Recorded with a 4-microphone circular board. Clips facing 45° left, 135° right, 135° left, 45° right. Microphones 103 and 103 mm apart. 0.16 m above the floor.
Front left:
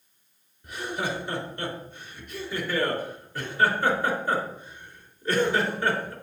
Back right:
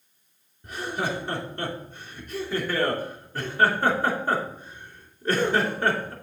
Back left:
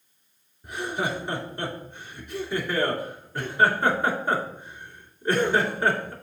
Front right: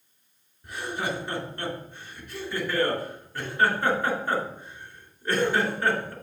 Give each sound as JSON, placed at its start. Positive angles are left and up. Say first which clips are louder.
{"t": 0.6, "sound": "laughter", "louder": "back right 1 dB, back left 2 dB", "azimuth_deg": -165, "distance_m": 2.5}